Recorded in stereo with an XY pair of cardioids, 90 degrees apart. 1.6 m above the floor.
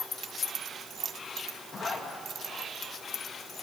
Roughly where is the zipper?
Ahead left.